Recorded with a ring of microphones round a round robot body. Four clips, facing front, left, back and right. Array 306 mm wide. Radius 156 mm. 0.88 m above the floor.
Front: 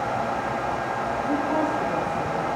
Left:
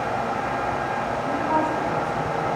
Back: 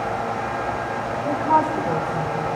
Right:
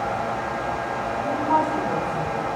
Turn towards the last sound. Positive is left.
turn(degrees=-175)